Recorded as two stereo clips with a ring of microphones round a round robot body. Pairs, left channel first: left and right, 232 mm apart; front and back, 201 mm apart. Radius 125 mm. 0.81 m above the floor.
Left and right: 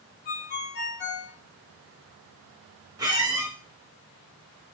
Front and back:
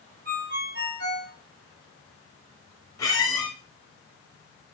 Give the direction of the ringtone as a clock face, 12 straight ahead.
7 o'clock.